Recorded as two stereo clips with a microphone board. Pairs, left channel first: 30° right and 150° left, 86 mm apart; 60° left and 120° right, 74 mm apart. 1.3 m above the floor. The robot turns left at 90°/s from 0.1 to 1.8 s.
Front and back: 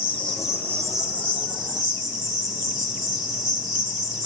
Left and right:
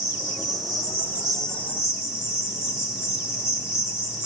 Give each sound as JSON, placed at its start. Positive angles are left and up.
{"t": 0.0, "sound": "an insect", "azimuth_deg": -95, "distance_m": 2.0}